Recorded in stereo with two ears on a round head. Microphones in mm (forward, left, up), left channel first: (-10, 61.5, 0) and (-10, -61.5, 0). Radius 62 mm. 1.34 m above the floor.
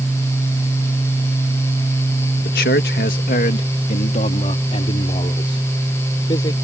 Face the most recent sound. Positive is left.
turn(degrees=30)  # may be behind; listen again after turning